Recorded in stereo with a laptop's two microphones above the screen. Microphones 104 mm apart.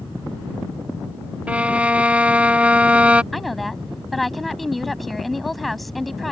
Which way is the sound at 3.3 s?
Centre (ahead or behind).